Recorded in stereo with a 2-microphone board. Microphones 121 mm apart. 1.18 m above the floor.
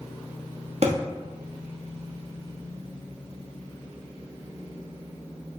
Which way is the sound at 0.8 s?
55° right (ahead or behind).